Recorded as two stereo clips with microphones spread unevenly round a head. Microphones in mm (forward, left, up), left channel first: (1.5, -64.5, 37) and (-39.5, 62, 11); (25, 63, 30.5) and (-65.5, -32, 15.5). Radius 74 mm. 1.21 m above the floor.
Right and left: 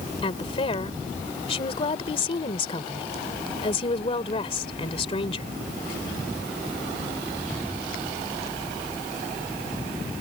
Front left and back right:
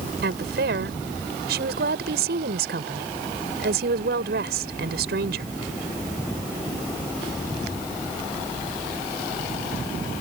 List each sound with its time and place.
0.2 s a woman speaking: 120° right